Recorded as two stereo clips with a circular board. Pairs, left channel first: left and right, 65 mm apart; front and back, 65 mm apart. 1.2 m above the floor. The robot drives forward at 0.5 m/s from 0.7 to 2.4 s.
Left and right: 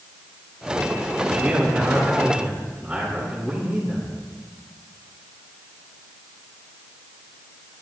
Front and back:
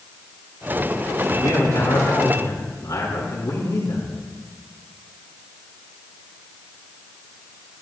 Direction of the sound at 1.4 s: 5° right.